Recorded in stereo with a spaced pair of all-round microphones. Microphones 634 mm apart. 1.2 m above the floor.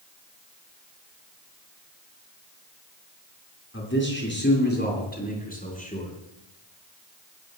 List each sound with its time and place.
3.7 s a man speaking: 20° left (ahead or behind), 8.5 m; by 6.1 s 10° left (ahead or behind), 10 m